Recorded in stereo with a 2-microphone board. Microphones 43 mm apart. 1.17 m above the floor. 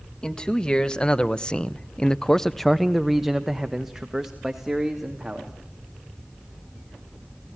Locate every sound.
0.2 s a man speaking: 15° left (ahead or behind), 1.7 m; by 5.5 s 10° right (ahead or behind), 2.5 m